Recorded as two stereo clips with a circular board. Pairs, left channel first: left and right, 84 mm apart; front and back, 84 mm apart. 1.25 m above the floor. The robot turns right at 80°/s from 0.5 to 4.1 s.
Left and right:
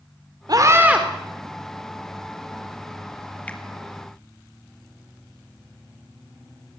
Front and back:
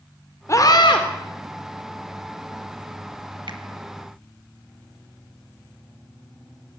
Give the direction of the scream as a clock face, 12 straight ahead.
2 o'clock.